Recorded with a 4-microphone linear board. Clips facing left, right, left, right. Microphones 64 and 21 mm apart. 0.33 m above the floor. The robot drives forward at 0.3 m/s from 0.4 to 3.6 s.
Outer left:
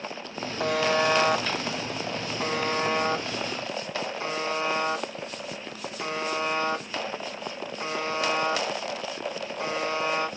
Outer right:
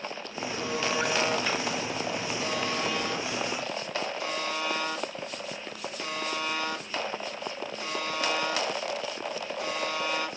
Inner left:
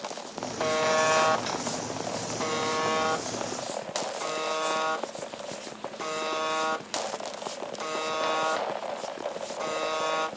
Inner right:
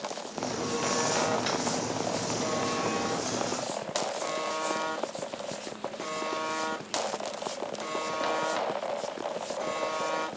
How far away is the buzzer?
About 0.6 m.